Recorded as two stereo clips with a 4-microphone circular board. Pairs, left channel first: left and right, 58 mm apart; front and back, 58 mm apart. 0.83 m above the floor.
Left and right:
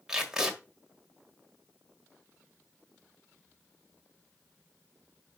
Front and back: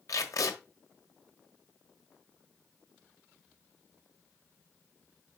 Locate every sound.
0.1 s tape being pulled: 10° right, 1.6 m